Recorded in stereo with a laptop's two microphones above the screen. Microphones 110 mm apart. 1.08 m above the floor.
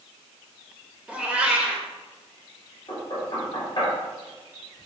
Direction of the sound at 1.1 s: 10° right (ahead or behind).